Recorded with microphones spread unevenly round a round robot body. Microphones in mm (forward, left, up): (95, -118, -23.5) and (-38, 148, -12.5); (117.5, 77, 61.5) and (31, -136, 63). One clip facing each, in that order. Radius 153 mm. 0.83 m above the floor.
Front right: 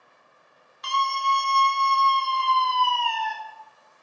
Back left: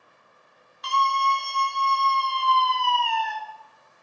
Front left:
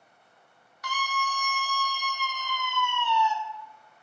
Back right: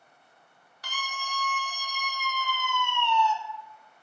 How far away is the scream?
About 2.5 m.